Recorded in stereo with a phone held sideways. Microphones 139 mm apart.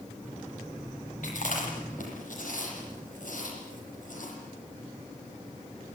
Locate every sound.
1.2 s chewing: 70° left (ahead or behind), 9 m